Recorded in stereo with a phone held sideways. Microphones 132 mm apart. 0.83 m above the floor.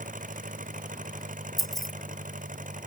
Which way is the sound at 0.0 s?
85° right.